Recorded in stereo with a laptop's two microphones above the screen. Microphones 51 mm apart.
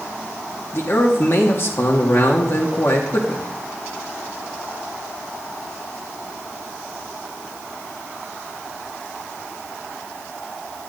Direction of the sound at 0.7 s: 50° left (ahead or behind).